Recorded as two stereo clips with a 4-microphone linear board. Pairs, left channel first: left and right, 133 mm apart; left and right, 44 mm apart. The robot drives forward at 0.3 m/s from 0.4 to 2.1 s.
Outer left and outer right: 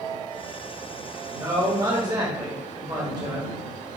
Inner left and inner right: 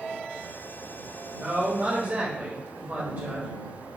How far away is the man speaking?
About 1.4 m.